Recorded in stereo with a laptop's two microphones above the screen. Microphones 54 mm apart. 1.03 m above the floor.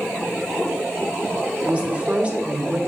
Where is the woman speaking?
25° right (ahead or behind), 0.8 m.